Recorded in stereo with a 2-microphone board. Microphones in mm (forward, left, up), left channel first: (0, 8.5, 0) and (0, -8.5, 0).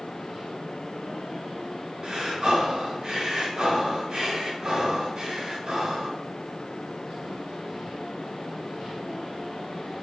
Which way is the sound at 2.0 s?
60° right (ahead or behind).